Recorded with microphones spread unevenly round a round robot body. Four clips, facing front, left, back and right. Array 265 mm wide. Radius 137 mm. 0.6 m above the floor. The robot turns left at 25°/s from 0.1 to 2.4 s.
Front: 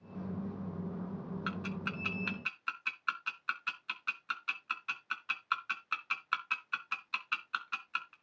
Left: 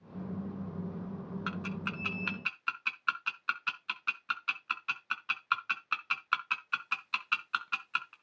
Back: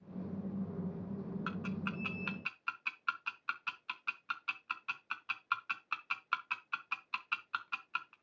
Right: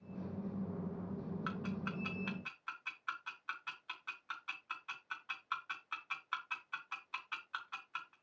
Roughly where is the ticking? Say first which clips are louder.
Left 5 dB, front 2 dB; behind left.